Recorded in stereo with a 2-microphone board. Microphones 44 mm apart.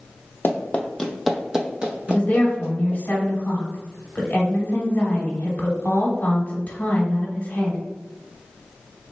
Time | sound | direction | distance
0.4 | running footsteps | 45° left (ahead or behind) | 0.5 m
2.1 | a woman speaking | 40° left (ahead or behind) | 1.1 m